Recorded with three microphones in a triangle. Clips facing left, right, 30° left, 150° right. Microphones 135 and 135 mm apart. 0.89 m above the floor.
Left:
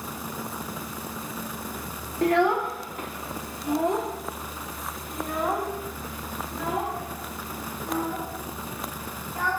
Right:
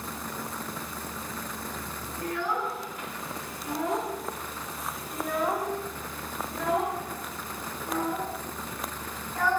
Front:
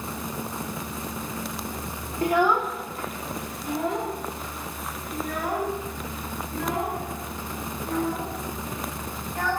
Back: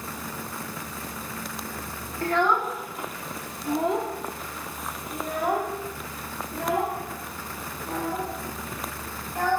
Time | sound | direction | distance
2.2 | a child speaking | 100° left | 0.8 m